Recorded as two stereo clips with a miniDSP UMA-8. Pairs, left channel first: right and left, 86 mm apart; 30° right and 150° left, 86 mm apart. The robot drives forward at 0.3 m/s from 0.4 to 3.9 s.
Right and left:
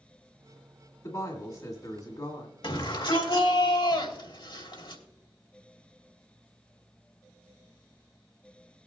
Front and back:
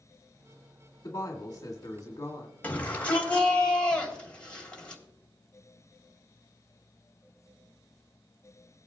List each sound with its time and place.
1.0 s a woman speaking: 55° right, 2 m; by 2.5 s 65° right, 2 m
2.6 s a shout: 100° right, 2.5 m; by 5.0 s 105° right, 2.5 m